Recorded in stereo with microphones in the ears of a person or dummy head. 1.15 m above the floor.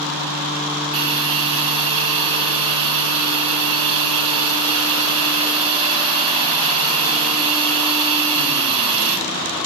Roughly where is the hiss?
Right.